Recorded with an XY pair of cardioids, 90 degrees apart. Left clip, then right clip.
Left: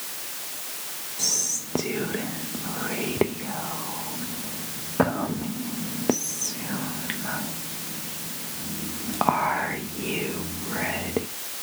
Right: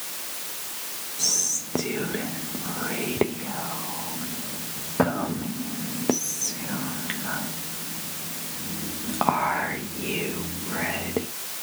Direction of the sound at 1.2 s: 10° left.